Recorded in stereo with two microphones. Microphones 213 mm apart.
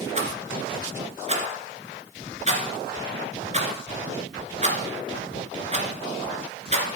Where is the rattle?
35° right (ahead or behind), 1.8 m.